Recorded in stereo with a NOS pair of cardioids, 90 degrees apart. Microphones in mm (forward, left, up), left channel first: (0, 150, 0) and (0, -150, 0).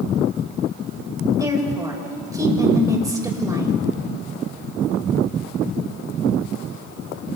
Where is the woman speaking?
10° right, 5.5 m.